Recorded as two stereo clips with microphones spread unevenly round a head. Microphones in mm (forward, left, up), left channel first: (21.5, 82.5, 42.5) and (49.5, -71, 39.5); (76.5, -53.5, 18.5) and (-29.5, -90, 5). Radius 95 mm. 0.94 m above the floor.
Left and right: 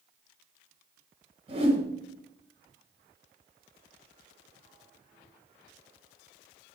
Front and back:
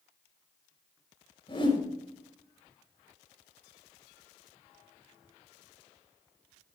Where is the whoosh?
25° right, 4 m.